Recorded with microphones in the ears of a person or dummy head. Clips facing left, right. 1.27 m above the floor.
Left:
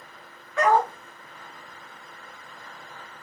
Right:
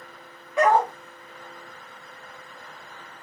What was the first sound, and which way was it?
A dog barking, 15° right (ahead or behind).